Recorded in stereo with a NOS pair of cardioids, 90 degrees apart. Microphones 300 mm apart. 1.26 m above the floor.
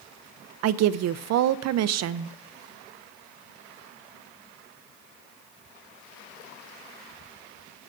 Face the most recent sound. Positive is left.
turn(degrees=-60)